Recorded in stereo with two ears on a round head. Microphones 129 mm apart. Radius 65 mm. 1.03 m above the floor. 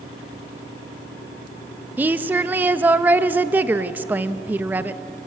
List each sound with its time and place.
2.0 s a woman speaking: 10° right (ahead or behind), 0.8 m